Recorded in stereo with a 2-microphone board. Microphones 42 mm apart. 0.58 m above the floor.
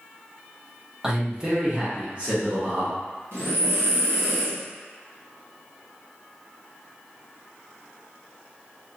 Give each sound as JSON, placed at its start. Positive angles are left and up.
{"t": 1.0, "sound": "a man speaking", "side_deg": -10, "distance_m": 0.6}
{"t": 3.3, "sound": "breathing", "side_deg": -75, "distance_m": 1.1}